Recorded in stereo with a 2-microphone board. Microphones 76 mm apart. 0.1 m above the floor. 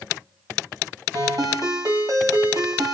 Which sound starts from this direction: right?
A ringtone, at 1.1 s.